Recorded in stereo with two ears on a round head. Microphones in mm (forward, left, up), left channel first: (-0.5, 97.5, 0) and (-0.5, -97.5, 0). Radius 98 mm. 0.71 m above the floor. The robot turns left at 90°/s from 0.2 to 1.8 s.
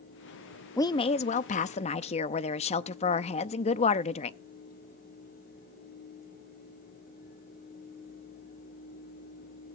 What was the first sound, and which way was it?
A woman speaking, 155° left.